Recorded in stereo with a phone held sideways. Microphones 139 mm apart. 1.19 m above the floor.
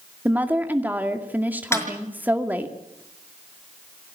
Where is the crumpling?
No crumpling in this recording.